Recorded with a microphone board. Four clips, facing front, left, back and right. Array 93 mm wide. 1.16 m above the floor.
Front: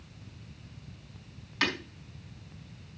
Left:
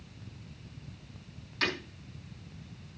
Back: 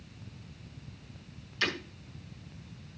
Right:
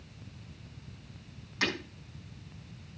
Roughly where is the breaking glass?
Ahead.